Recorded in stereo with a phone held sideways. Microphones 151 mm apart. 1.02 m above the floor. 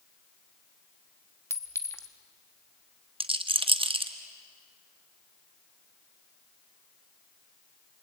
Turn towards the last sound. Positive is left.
turn(degrees=-35)  # may be behind; listen again after turning